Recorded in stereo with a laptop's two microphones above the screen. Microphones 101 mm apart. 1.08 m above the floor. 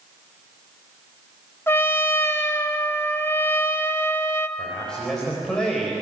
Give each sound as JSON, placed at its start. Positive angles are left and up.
{"t": 1.7, "sound": "a trumpet", "side_deg": 25, "distance_m": 1.4}
{"t": 4.6, "sound": "a man speaking", "side_deg": 5, "distance_m": 4.0}